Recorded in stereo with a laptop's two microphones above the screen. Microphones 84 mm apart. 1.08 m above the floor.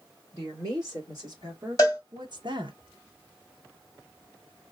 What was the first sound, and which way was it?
A woman speaking, 40° right (ahead or behind).